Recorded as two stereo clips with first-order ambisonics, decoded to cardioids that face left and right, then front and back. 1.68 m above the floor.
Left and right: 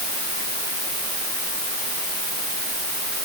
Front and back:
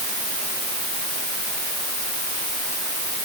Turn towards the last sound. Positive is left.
No sound to turn to.